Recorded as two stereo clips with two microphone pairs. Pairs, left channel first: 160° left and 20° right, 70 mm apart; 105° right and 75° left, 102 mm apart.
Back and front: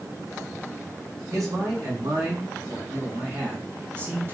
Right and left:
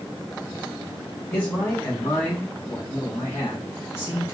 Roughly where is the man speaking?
Ahead right.